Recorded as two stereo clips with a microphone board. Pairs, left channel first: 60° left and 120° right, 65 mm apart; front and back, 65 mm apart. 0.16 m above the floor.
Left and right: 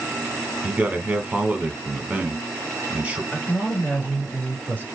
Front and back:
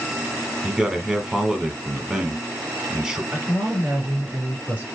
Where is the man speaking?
115° right, 1.1 m.